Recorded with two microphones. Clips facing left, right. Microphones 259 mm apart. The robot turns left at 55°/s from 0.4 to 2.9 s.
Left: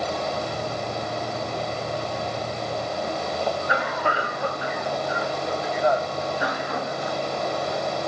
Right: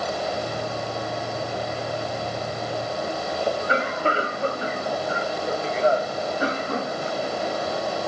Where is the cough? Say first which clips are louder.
Right 2 dB; 30° right (ahead or behind), 1.1 m.